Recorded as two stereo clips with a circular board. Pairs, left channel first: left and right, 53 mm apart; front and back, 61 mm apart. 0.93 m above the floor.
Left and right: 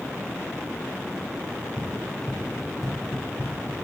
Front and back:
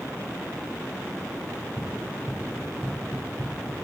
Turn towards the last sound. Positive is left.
turn(degrees=150)